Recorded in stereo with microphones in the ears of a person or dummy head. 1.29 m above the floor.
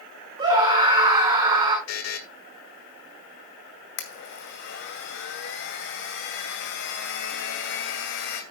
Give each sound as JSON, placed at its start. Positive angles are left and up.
{"t": 0.4, "sound": "a scream", "side_deg": -25, "distance_m": 6.0}
{"t": 1.9, "sound": "a buzzer", "side_deg": 70, "distance_m": 1.9}
{"t": 4.0, "sound": "a blender", "side_deg": 55, "distance_m": 2.0}